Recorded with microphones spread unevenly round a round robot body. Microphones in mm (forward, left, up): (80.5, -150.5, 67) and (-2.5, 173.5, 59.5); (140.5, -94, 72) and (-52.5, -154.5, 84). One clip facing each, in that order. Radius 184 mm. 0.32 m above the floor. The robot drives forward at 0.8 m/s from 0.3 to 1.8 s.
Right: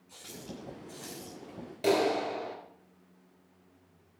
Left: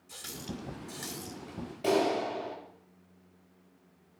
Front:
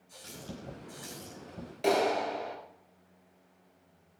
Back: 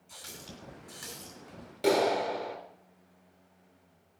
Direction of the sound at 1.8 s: 115° right.